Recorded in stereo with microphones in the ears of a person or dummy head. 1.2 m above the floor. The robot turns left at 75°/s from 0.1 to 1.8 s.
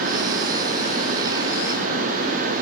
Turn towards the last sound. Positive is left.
No sound to turn to.